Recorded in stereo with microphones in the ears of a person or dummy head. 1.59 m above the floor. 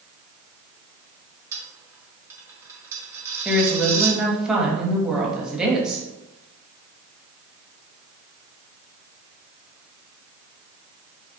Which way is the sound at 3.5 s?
Centre (ahead or behind).